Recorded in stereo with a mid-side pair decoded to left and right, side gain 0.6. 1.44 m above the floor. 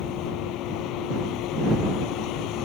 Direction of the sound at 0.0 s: 70° left.